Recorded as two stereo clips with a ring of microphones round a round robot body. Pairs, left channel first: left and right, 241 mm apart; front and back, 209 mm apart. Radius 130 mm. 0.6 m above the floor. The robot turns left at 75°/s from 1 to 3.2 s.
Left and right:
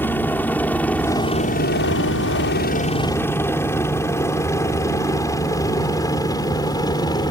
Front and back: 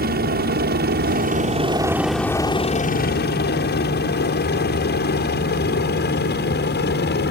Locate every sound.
0.0 s a helicopter: 170° left; by 7.3 s 20° left